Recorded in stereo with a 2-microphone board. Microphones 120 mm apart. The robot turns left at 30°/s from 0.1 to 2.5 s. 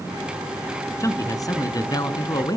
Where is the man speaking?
125° left, 1.2 m; by 2.6 s 80° left, 1.2 m.